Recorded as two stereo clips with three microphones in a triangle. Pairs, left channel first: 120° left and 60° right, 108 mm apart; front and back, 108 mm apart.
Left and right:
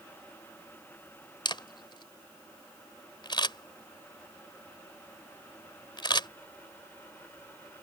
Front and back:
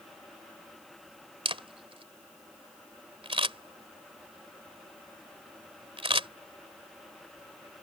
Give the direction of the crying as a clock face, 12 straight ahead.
I don't hear crying.